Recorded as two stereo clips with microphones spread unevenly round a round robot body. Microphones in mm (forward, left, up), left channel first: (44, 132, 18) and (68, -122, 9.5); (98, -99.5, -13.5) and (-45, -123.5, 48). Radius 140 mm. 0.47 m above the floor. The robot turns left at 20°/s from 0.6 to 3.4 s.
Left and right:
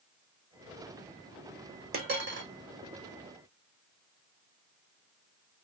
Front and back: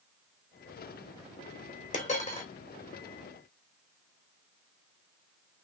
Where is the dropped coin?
30° right, 3 m; by 2.5 s 40° right, 3 m.